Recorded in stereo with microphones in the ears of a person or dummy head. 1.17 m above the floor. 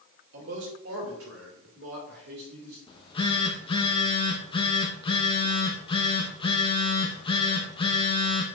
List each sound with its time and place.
0.3 s a man speaking: 65° right (ahead or behind), 2.5 m; by 2.8 s 45° right (ahead or behind), 2.5 m
2.9 s a phone buzzing: 30° left (ahead or behind), 1.0 m